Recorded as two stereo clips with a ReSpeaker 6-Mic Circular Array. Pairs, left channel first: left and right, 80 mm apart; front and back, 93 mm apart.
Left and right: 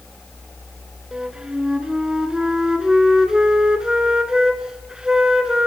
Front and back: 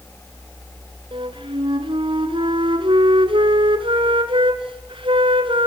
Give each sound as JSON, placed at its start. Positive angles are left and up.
{"t": 1.1, "sound": "a flute", "azimuth_deg": -170, "distance_m": 1.5}